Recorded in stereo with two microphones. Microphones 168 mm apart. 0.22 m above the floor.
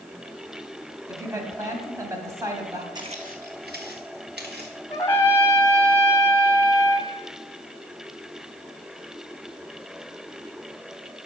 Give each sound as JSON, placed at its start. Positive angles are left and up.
{"t": 1.1, "sound": "a woman speaking", "side_deg": -20, "distance_m": 1.5}
{"t": 3.0, "sound": "footsteps", "side_deg": -25, "distance_m": 0.7}
{"t": 4.9, "sound": "a trumpet", "side_deg": 15, "distance_m": 1.2}